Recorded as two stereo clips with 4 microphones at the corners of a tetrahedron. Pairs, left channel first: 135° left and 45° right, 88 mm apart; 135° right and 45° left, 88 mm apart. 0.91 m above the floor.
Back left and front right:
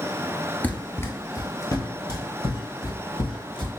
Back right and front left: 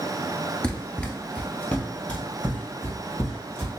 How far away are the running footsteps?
About 0.9 m.